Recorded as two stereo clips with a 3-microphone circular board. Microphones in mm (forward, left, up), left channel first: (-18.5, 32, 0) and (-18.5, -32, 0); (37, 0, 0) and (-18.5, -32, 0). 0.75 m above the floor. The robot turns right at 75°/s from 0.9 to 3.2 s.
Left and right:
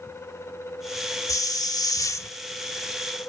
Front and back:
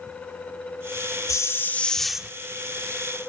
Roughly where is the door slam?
No door slam in this recording.